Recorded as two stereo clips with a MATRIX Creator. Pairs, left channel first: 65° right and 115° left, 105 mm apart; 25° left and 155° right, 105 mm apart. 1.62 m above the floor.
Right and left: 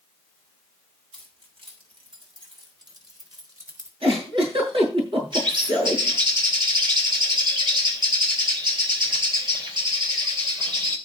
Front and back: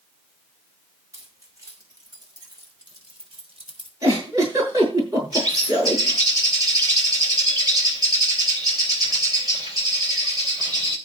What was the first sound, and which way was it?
Keys jangling, 145° left.